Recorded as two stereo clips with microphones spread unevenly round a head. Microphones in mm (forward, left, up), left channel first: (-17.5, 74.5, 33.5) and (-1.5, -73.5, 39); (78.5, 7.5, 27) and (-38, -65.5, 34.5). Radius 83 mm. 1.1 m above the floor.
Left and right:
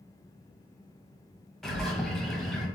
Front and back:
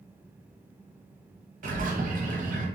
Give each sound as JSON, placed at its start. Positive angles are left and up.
{"t": 1.6, "sound": "a bird", "azimuth_deg": -175, "distance_m": 1.1}